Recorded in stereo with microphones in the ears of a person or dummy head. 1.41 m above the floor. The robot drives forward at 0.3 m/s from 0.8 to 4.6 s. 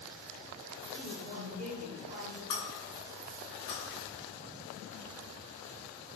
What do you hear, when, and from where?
0.9 s a man speaking: 40° right (ahead or behind), 0.5 m; by 2.4 s 20° right (ahead or behind), 0.9 m
2.5 s breaking glass: 55° left (ahead or behind), 1.9 m; by 4.0 s 60° left (ahead or behind), 1.8 m